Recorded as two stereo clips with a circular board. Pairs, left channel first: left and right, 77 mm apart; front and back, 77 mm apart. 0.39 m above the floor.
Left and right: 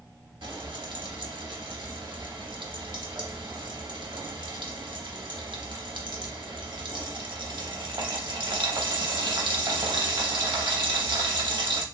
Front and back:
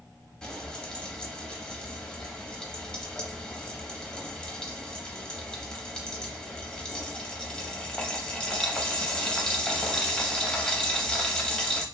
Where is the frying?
80° right, 0.6 m.